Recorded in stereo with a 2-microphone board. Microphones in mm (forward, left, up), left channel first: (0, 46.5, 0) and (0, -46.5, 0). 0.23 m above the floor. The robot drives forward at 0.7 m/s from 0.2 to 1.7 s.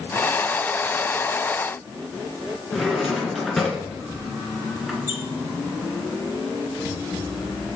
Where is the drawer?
Centre (ahead or behind), 2 m.